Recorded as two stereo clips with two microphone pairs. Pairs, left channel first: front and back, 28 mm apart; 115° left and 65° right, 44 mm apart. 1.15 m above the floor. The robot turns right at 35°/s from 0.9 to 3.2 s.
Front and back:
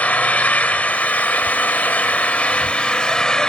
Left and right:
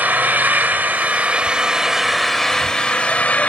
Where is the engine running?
20° right, 1.9 m; by 3.5 s 60° left, 1.9 m.